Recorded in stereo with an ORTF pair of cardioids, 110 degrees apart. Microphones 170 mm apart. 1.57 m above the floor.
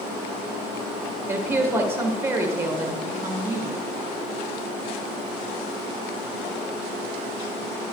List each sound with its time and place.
1.3 s a woman speaking: 15° right, 1.8 m